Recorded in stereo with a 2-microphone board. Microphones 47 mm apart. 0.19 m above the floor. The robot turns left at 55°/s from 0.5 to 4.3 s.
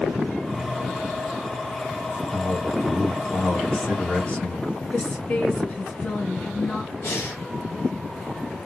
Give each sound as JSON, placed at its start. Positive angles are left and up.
{"t": 2.1, "sound": "a man speaking", "azimuth_deg": -120, "distance_m": 1.6}
{"t": 4.9, "sound": "a woman speaking", "side_deg": 40, "distance_m": 2.0}
{"t": 7.0, "sound": "breathing", "side_deg": 60, "distance_m": 0.9}